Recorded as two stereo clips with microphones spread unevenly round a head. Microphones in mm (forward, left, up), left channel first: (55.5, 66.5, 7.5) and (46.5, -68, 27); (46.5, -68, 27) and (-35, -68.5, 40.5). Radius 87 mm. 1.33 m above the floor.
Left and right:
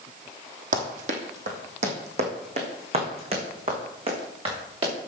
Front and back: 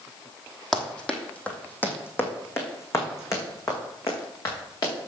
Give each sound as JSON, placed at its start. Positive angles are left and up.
{"t": 0.7, "sound": "running footsteps", "azimuth_deg": -95, "distance_m": 2.5}